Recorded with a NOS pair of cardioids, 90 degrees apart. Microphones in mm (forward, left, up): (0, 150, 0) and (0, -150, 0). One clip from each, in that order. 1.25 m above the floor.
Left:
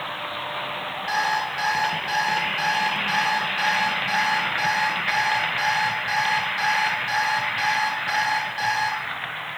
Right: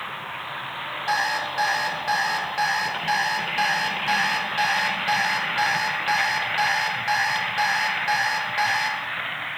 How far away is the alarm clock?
About 1.4 m.